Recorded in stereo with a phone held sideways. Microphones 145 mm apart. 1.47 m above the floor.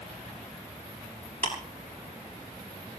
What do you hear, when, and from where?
1.4 s ticking: 80° left, 7 m